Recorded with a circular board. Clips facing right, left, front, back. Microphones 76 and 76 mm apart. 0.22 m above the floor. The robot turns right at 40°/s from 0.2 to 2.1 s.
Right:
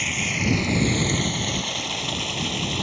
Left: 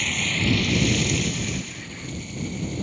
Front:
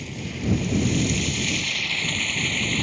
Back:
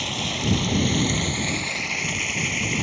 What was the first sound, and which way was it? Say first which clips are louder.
Running water: even, back 2 dB; 175° right.